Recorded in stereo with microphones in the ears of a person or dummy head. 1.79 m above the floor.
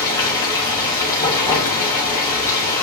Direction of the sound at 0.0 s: 15° left (ahead or behind).